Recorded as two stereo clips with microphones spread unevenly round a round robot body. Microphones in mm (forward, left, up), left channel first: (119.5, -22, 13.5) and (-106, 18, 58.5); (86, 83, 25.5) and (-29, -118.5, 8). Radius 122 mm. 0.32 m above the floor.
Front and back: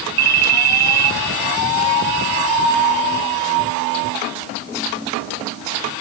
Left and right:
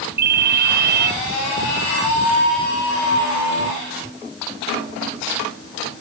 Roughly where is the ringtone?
Behind.